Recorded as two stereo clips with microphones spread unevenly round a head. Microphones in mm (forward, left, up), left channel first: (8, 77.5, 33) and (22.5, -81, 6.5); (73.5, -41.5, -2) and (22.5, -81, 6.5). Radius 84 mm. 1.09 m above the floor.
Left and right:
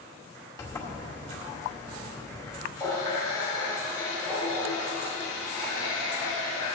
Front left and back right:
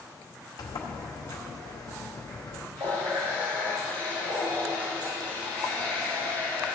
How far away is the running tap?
About 3 m.